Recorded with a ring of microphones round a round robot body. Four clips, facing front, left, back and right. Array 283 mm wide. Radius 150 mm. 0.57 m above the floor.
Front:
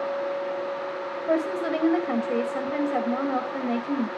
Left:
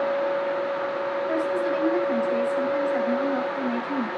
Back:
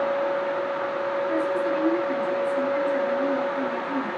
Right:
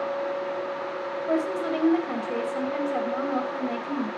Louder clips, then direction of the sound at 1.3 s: Right 1 dB, front 3 dB; 5° right.